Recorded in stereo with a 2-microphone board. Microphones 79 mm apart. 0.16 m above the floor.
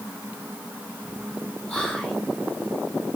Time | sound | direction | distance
1.7 | whispering | 15° left (ahead or behind) | 1.5 m